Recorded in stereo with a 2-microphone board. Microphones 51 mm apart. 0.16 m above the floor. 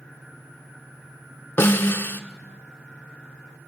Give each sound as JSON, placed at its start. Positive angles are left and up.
{"t": 1.6, "sound": "a snare drum", "side_deg": 45, "distance_m": 0.8}